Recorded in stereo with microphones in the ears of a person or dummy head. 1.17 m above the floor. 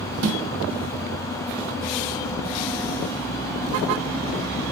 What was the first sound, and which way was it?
A snare drum, 75° right (ahead or behind).